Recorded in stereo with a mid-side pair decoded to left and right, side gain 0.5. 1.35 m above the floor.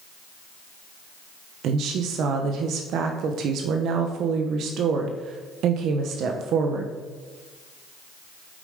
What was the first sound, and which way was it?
A woman speaking, 70° right.